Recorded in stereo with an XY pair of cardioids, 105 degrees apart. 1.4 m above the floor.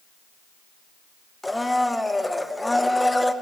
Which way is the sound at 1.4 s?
10° left.